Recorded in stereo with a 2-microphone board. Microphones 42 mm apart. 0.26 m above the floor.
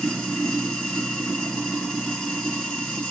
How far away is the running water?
About 2 m.